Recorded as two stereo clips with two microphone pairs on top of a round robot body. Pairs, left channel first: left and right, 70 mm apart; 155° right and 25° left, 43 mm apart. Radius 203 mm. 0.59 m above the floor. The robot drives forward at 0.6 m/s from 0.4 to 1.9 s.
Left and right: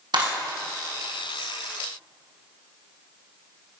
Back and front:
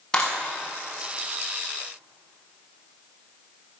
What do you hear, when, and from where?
0.1 s a clap: 80° right, 6 m